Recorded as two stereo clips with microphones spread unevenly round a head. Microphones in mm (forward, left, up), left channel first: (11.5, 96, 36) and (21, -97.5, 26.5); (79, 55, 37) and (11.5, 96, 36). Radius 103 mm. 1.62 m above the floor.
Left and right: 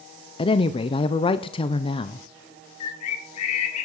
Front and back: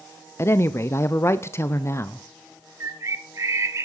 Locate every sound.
0.4 s a woman speaking: 25° left, 0.8 m
2.8 s a bird: 100° left, 2.0 m